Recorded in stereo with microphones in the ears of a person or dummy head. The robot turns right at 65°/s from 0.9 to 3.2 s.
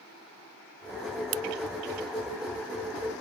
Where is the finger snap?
70° right (ahead or behind); by 1.4 s 60° right (ahead or behind).